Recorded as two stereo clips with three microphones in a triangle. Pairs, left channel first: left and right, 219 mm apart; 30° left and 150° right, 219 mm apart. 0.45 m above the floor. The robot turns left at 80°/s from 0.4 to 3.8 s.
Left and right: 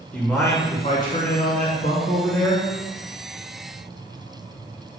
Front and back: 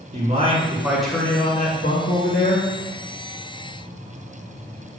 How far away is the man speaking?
About 2.0 m.